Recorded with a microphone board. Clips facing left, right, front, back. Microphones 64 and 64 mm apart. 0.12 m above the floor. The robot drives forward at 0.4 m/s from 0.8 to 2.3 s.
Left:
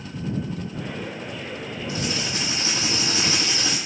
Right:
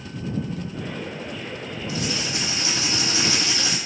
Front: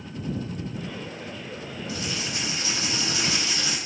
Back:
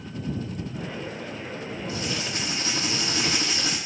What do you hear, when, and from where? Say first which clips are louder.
1.9 s writing: even, even; 135° left, 1.0 m; by 3.8 s 140° left, 1.1 m